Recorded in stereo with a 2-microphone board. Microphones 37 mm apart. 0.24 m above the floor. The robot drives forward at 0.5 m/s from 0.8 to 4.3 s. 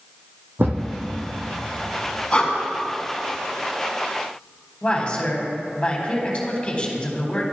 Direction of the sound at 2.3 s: 25° left (ahead or behind).